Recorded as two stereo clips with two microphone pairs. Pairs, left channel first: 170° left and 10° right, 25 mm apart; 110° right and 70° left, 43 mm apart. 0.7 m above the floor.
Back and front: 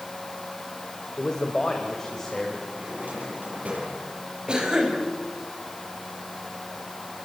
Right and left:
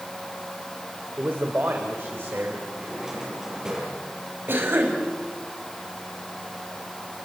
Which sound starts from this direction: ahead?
A drawer, at 2.7 s.